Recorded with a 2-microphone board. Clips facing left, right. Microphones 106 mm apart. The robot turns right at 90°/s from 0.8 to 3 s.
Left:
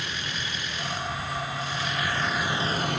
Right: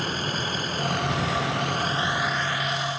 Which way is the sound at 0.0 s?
40° right (ahead or behind).